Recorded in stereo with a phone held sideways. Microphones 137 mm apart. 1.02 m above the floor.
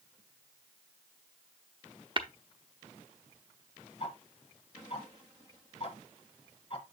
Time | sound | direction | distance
2.2 | tapping | 35° right (ahead or behind) | 0.7 m
4.0 | ticking | 45° left (ahead or behind) | 1.3 m